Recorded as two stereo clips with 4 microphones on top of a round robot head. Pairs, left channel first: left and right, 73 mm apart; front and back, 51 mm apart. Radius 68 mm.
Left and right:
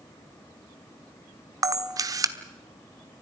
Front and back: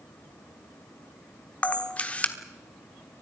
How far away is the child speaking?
No child speaking in this recording.